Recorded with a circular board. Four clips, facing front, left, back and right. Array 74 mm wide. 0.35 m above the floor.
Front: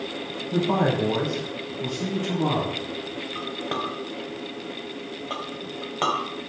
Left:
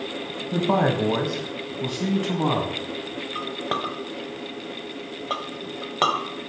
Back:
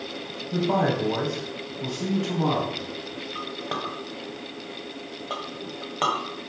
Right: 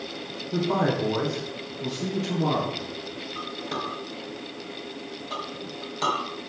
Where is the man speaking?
85° left, 2.0 m; by 2.8 s 100° left, 3 m.